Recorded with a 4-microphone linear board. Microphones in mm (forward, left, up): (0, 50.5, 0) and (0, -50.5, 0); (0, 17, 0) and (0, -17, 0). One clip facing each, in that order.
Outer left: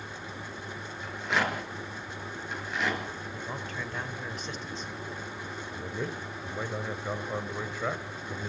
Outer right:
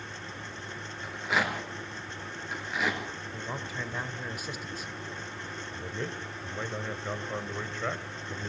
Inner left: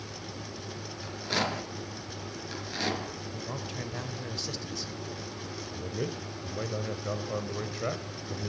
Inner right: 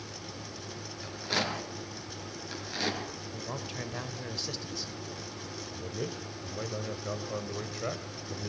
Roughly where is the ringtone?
I don't hear a ringtone.